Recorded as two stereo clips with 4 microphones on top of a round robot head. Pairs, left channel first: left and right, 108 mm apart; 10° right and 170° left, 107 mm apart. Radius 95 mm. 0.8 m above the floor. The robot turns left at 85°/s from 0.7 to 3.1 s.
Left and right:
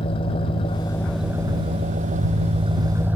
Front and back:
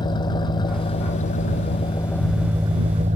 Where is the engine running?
40° left; by 3.2 s 165° right.